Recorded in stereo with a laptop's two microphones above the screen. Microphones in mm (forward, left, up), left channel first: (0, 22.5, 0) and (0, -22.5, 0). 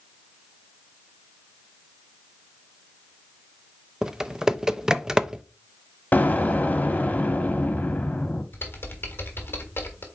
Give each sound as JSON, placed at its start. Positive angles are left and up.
{"t": 4.0, "sound": "typing on a keyboard", "side_deg": -15, "distance_m": 0.5}
{"t": 6.1, "sound": "an explosion", "side_deg": 40, "distance_m": 1.4}
{"t": 8.5, "sound": "typing on a keyboard", "side_deg": 55, "distance_m": 1.5}